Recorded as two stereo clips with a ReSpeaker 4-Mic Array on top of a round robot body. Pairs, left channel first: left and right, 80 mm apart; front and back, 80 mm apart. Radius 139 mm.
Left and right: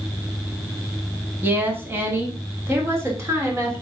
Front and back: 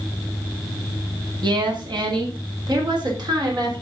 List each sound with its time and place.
1.4 s a woman speaking: 155° right, 2.5 m; by 3.8 s 145° right, 3.5 m